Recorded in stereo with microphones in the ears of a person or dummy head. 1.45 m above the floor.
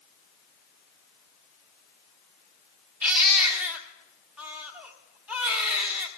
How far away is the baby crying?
About 1.3 m.